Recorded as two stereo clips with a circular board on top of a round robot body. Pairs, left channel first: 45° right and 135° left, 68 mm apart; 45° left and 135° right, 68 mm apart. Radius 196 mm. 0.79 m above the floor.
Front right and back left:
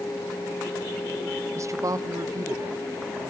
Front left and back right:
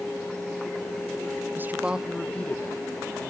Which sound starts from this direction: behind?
A man speaking, at 1.6 s.